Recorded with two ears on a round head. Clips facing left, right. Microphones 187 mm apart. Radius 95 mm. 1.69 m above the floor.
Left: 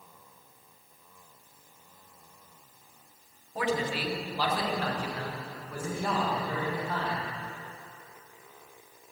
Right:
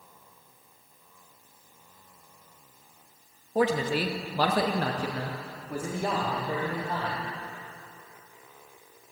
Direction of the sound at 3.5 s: 30° right (ahead or behind).